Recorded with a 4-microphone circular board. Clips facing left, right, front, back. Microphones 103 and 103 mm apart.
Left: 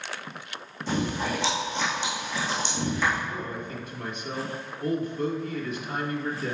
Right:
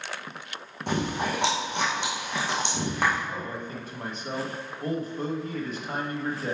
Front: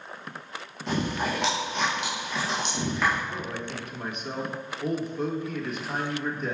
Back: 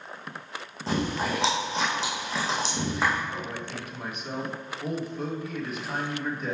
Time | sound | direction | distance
0.9 | chewing | 120° right | 2 m
3.3 | a man speaking | 95° right | 1.2 m